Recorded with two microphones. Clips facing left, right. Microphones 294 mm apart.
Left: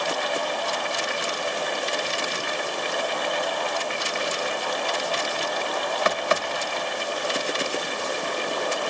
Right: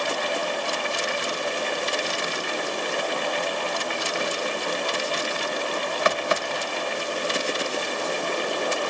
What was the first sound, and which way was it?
Only background noise.